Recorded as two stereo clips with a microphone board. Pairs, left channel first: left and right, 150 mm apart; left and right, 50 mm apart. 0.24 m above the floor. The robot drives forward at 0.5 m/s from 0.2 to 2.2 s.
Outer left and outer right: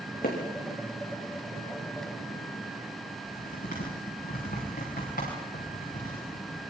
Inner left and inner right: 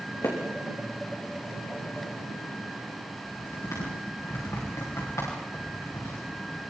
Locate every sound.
0.2 s hammering: 75° left (ahead or behind), 6 m
3.1 s typing on a keyboard: 80° left, 9.5 m